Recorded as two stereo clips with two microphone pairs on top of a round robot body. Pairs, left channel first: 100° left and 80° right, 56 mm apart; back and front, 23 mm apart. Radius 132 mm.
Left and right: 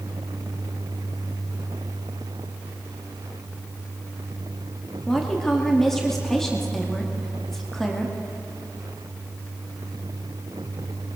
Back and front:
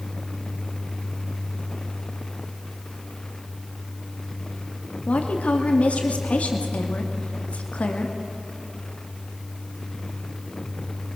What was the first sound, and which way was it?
A woman speaking, straight behind.